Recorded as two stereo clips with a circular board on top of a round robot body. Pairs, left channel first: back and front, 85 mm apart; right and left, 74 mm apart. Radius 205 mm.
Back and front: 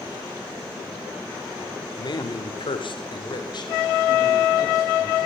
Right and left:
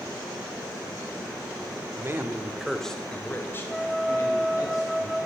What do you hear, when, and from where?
2.0 s a man speaking: 145° left, 1.9 m; by 5.3 s 130° right, 4.5 m